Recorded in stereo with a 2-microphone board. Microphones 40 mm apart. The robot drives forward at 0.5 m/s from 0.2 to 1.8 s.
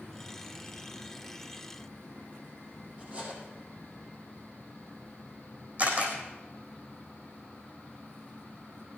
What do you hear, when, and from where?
3.0 s cutlery clinking: 30° right (ahead or behind), 4.5 m
5.8 s a camera shutter: 45° right (ahead or behind), 4 m